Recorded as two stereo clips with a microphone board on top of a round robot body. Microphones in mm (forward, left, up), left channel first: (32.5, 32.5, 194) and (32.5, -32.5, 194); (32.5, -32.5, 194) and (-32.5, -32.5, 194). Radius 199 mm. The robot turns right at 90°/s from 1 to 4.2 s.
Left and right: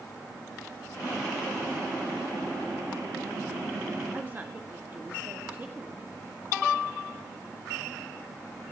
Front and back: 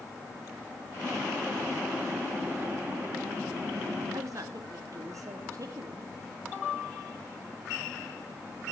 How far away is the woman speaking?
About 2.5 m.